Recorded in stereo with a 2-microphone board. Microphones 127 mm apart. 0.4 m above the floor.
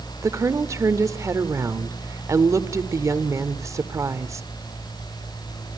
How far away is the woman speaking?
About 0.8 m.